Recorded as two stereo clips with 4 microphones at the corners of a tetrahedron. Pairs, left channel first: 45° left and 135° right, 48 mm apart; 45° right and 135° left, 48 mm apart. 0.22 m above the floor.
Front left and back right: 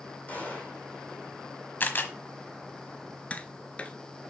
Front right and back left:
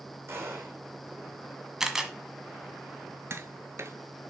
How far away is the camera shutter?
About 1.2 m.